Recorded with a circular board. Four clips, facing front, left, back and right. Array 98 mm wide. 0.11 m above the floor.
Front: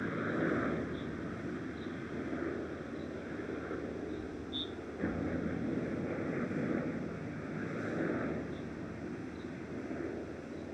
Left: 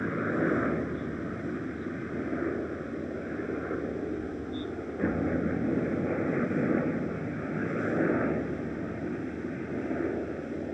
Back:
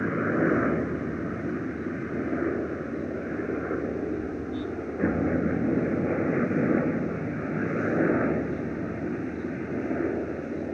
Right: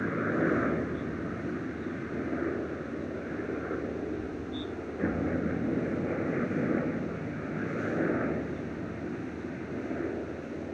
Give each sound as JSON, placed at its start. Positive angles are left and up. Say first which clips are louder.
{"t": 0.0, "sound": "a helicopter", "louder": "even, back 10 dB", "azimuth_deg": -175}